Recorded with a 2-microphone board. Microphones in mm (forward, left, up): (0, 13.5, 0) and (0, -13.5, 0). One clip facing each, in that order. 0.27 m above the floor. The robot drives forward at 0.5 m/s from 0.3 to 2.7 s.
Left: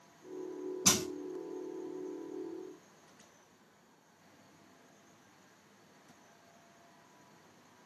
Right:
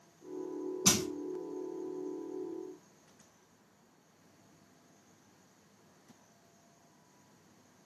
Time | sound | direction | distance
0.8 | crushing | 5° right (ahead or behind) | 1.1 m